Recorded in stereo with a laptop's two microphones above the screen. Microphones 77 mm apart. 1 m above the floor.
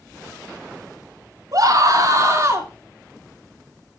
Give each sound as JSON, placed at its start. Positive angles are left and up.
{"t": 1.5, "sound": "a scream", "side_deg": -50, "distance_m": 3.0}